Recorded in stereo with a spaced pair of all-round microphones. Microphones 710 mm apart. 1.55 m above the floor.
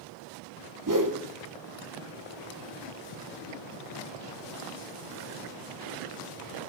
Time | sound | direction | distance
0.9 | a whoosh | 25° right (ahead or behind) | 1.0 m